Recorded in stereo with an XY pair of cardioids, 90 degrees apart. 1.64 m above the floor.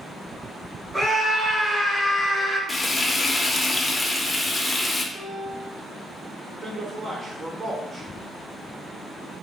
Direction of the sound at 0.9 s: 15° right.